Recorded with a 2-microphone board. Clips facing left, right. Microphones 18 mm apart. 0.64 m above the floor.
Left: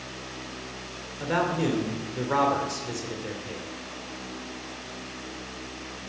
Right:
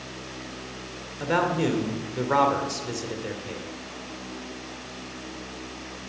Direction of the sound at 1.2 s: 15° right (ahead or behind).